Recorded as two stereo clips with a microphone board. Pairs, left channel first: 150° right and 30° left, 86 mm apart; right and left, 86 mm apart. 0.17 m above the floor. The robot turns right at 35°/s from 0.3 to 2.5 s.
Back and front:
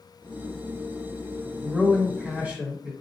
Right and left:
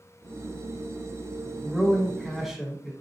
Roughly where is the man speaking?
Ahead right.